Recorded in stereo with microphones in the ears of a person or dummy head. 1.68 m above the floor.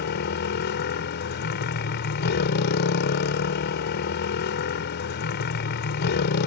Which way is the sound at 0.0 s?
55° left (ahead or behind).